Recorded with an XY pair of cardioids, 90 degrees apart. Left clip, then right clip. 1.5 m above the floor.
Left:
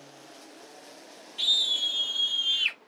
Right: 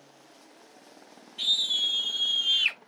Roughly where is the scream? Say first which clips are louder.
Left 1 dB; ahead left.